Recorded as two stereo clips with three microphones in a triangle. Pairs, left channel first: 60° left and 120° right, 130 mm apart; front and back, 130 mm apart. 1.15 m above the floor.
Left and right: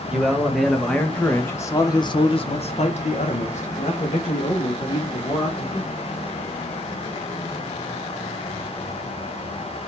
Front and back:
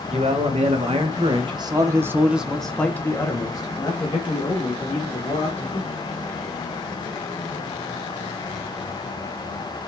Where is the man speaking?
155° left, 1.4 m; by 6.0 s 30° left, 2 m.